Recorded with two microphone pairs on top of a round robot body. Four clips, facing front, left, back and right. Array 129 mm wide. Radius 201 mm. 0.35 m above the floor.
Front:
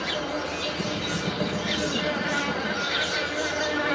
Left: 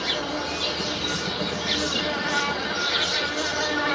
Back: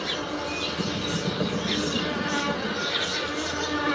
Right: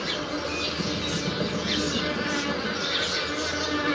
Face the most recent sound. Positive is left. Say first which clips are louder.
# left 2 dB, front 1 dB
turn(degrees=50)